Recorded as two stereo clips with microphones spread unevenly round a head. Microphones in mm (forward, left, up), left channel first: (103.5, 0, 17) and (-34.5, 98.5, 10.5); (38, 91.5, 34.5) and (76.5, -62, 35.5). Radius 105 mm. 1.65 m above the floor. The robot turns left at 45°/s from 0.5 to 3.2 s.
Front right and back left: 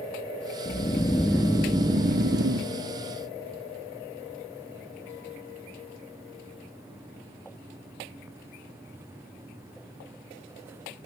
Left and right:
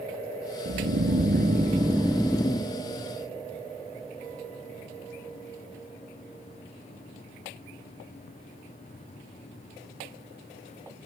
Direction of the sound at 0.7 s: 95° right.